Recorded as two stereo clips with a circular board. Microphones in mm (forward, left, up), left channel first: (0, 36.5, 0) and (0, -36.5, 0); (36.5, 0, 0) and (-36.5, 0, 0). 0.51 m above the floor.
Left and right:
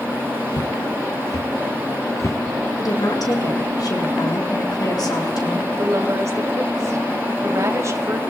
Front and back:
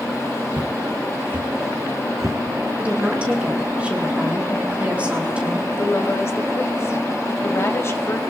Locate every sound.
0.5 s footsteps: 110° left, 2.5 m; by 2.4 s 140° left, 2.5 m
2.8 s a woman speaking: 110° left, 6.5 m
5.8 s a woman speaking: 50° right, 2.5 m